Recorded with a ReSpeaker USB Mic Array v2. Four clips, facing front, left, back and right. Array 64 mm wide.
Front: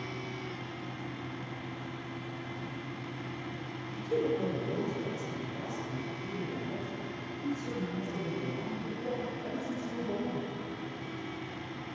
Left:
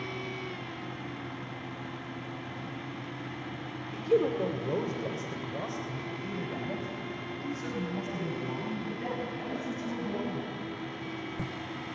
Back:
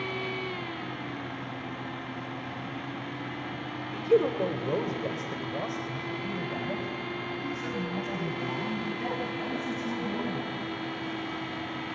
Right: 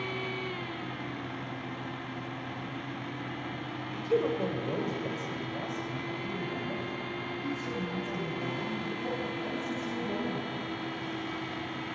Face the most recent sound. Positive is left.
turn(degrees=150)